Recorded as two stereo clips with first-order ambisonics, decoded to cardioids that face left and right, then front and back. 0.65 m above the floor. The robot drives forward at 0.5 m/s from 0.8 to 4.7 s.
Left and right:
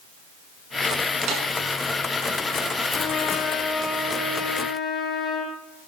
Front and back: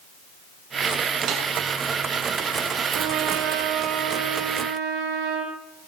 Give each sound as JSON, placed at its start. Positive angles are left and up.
{"t": 1.3, "sound": "a snare drum", "azimuth_deg": -130, "distance_m": 5.5}
{"t": 2.9, "sound": "a trumpet", "azimuth_deg": 160, "distance_m": 3.5}